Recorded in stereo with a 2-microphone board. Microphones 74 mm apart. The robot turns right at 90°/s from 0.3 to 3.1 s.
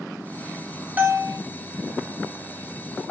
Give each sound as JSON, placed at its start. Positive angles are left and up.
{"t": 1.0, "sound": "a bell", "azimuth_deg": -155, "distance_m": 0.6}